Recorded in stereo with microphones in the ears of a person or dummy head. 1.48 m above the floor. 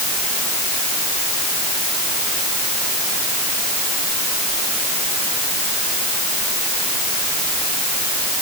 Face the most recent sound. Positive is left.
No sound to turn to.